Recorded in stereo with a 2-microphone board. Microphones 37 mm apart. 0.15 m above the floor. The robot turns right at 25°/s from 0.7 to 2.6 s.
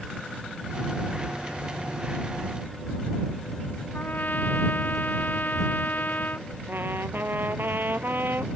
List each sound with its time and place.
3.9 s a trumpet: 50° left (ahead or behind)
6.7 s a trumpet: 65° right (ahead or behind)